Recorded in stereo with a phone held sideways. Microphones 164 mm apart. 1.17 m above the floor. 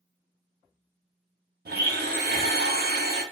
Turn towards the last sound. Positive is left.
turn(degrees=-65)  # may be behind; listen again after turning